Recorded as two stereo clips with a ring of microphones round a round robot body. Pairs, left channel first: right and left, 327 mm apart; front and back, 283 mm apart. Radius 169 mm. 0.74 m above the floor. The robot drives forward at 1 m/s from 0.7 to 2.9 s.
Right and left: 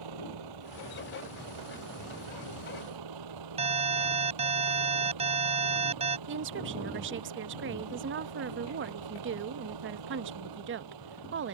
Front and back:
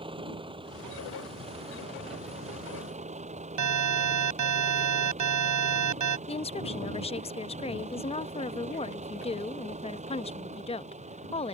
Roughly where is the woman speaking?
Ahead left.